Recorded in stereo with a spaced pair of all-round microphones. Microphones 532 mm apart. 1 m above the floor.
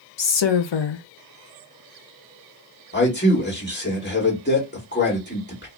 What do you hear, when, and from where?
0.2 s a woman speaking: 55° left (ahead or behind), 0.6 m
2.9 s a man speaking: 20° left (ahead or behind), 1.5 m